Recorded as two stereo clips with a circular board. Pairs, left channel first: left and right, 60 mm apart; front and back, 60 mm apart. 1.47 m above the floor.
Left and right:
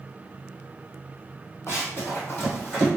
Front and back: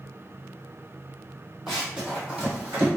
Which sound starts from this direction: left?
Running footsteps, at 1.7 s.